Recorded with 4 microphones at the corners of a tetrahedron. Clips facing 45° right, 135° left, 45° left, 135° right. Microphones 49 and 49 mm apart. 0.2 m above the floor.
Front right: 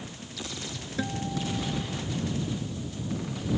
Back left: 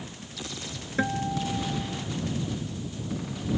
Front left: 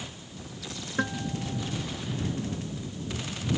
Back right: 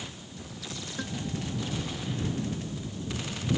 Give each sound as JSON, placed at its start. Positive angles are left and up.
{"t": 1.0, "sound": "a guitar", "azimuth_deg": 90}